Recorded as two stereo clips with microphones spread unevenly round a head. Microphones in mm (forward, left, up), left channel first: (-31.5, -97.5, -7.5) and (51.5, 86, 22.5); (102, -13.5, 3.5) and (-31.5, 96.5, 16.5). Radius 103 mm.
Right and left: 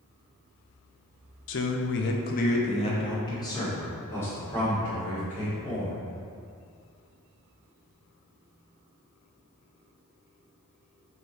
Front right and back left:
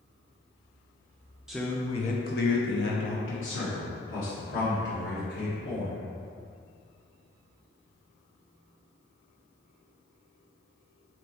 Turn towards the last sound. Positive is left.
turn(degrees=-30)